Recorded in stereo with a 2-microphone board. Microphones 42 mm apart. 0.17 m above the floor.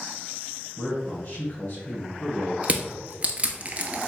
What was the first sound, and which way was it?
A man speaking, 40° left (ahead or behind).